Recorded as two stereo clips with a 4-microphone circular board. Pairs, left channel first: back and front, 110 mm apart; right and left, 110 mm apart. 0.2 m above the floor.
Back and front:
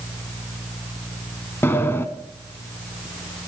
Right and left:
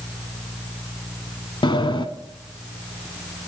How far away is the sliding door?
About 0.8 m.